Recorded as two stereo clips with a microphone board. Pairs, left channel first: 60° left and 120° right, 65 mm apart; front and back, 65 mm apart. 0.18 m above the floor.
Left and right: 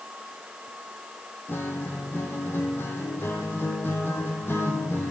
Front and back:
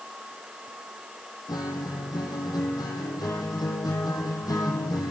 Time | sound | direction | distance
1.5 | a guitar | 5° left | 1.6 m